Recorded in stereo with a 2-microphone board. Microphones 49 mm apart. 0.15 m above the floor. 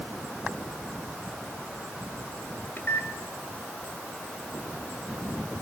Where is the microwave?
50° left (ahead or behind), 1.5 m.